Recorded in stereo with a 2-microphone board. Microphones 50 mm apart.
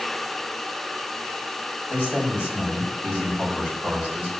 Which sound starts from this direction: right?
A man speaking, at 1.9 s.